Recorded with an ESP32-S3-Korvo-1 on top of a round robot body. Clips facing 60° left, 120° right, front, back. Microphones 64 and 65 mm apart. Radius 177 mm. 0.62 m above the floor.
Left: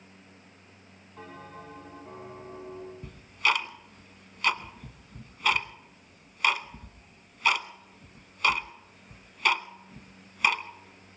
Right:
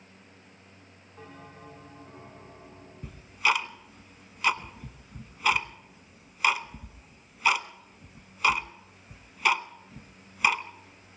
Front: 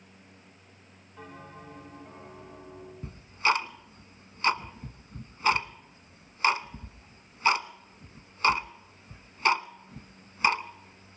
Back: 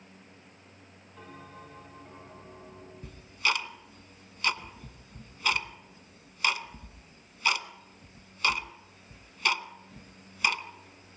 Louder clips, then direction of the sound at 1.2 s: Left 3 dB, front 2 dB; 95° left.